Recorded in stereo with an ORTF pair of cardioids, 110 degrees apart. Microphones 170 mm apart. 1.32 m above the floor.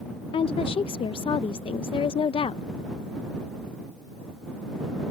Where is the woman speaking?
35° left.